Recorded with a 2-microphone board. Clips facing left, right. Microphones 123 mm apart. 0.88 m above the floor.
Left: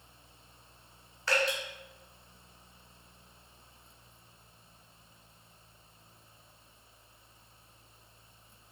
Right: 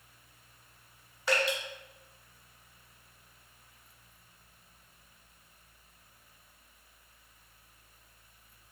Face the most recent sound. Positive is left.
turn(degrees=-20)  # may be behind; listen again after turning